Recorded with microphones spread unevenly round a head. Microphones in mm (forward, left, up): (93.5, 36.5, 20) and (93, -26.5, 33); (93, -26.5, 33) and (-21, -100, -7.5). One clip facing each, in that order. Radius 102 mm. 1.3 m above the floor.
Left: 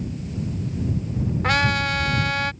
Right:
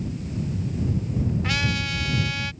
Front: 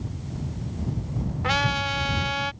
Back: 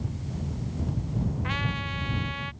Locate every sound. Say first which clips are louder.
1.4 s a trumpet: left 6 dB, front 7 dB; 50° left